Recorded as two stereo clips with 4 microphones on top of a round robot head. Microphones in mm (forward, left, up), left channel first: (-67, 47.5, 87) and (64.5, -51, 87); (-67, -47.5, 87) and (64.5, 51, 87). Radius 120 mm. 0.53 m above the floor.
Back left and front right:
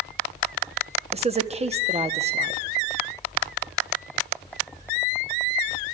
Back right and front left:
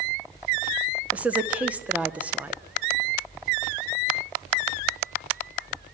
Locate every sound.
1.1 s a woman speaking: 40° right, 1.3 m